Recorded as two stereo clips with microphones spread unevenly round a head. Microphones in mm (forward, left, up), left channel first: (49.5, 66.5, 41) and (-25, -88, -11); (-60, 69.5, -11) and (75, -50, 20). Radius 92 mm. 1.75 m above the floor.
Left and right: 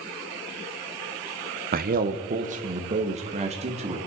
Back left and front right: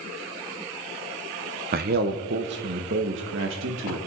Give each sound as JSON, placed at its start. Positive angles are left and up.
{"t": 1.7, "sound": "a man speaking", "azimuth_deg": -70, "distance_m": 1.1}